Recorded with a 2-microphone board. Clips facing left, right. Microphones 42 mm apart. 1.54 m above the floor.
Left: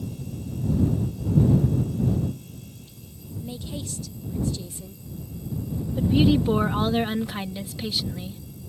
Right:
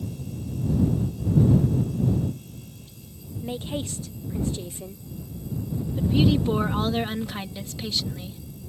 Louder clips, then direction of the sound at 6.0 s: Left 2 dB; 5° left (ahead or behind).